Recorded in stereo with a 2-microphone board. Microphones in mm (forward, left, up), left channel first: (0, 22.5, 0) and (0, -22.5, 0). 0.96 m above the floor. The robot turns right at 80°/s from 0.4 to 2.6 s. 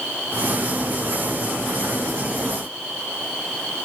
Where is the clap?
I don't hear a clap.